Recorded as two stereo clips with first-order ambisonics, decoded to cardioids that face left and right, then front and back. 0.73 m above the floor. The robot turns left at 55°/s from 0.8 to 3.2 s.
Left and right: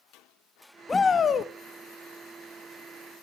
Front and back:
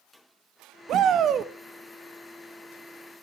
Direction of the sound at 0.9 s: 165° left.